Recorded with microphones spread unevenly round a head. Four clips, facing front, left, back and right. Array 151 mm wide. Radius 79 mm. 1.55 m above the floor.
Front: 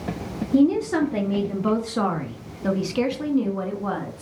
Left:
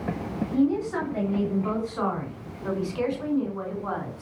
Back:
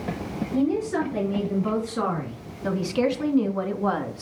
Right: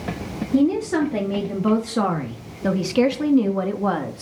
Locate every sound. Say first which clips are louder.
0.5 s a woman speaking: right 5 dB, front 5 dB; 40° right, 3 m; by 4.2 s 105° right, 2.5 m